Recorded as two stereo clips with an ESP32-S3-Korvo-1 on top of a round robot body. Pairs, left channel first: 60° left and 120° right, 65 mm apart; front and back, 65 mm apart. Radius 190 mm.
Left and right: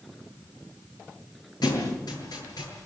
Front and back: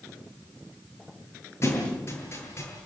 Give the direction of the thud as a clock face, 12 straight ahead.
10 o'clock.